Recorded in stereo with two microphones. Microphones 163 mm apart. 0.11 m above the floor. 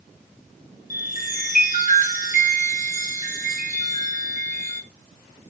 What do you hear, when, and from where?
0.9 s a chime: 55° left (ahead or behind), 4 m